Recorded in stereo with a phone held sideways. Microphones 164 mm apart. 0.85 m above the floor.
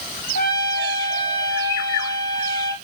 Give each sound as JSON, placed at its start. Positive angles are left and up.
{"t": 0.3, "sound": "a trumpet", "side_deg": 70, "distance_m": 1.9}